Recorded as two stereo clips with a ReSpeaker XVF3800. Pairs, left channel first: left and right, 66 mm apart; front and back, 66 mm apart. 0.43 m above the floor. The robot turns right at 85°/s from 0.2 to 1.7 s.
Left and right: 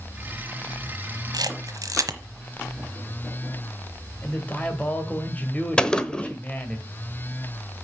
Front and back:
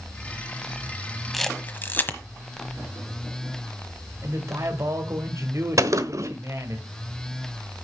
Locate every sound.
1.3 s a camera shutter: 90° right, 1.2 m; by 2.2 s 60° right, 1.2 m
4.2 s a man speaking: 155° left, 1.8 m
5.8 s a gunshot: 165° left, 0.9 m